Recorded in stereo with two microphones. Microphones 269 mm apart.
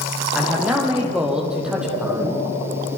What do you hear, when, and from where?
0.3 s a man speaking: 5° right (ahead or behind), 6 m